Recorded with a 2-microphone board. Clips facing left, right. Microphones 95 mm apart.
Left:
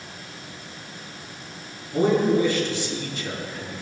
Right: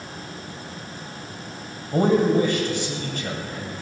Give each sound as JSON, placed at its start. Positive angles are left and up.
{"t": 1.9, "sound": "a man speaking", "side_deg": -50, "distance_m": 2.5}